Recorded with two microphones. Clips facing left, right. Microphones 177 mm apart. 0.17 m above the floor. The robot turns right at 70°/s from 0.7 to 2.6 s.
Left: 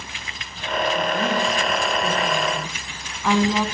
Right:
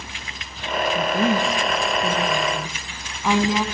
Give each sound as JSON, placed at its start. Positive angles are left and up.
{"t": 0.9, "sound": "a woman speaking", "side_deg": -15, "distance_m": 1.3}